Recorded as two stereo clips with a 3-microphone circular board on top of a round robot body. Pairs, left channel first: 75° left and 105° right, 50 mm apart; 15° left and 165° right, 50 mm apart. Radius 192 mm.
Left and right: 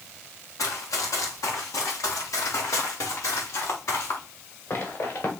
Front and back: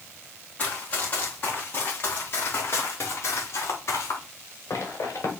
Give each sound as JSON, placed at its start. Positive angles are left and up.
{"t": 0.6, "sound": "running footsteps", "azimuth_deg": 75, "distance_m": 6.0}